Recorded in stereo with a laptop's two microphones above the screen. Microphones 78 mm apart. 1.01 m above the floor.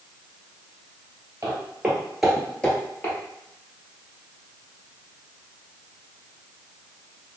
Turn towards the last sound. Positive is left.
turn(degrees=30)  # may be behind; listen again after turning